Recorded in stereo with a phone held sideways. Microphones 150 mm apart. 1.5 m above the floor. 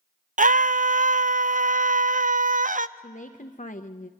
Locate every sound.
0.4 s a scream: 60° right (ahead or behind), 0.6 m
3.0 s a woman speaking: 55° left (ahead or behind), 0.7 m